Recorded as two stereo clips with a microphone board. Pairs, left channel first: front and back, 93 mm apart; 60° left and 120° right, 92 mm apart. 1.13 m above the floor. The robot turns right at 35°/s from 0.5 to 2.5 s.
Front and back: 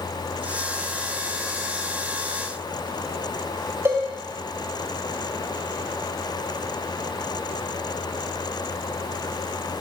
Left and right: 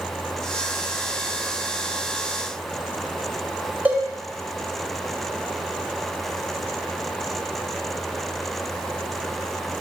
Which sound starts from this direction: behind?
A cowbell, at 3.9 s.